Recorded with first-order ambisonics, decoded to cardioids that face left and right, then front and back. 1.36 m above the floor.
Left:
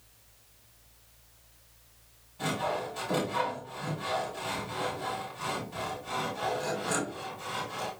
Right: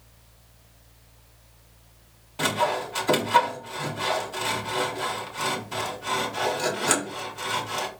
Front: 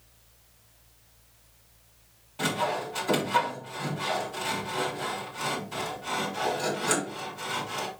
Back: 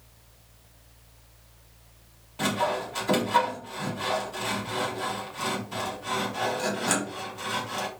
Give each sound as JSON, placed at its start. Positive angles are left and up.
{"t": 2.4, "sound": "sawing", "azimuth_deg": -95, "distance_m": 3.0}